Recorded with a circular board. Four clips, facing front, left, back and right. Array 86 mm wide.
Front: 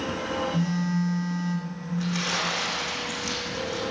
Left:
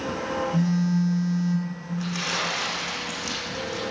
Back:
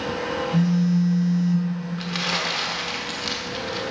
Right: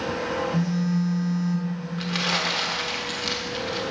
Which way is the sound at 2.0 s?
135° right.